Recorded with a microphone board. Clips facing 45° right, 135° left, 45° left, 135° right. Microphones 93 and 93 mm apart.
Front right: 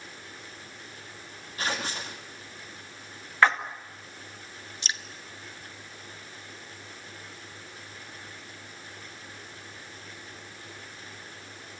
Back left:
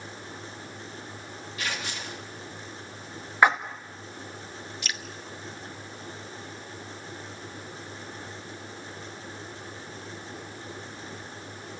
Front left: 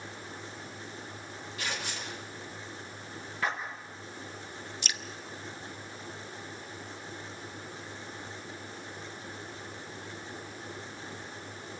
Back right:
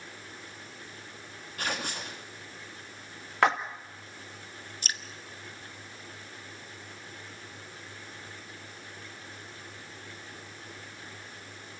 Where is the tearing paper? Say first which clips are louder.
Front right 3 dB, back right 4 dB; 100° right, 3 m.